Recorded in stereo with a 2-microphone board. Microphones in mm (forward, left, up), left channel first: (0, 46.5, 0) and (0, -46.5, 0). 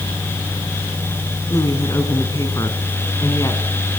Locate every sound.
1.5 s a woman speaking: 35° left (ahead or behind), 3 m